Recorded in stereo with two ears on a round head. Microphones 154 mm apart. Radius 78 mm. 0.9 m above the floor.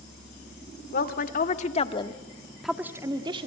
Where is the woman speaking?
60° left (ahead or behind), 2.5 m; by 3.5 s 35° right (ahead or behind), 1.9 m.